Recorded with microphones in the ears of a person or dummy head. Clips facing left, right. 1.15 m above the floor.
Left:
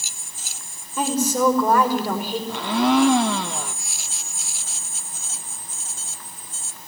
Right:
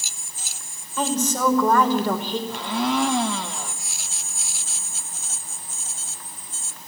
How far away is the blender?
About 1.1 m.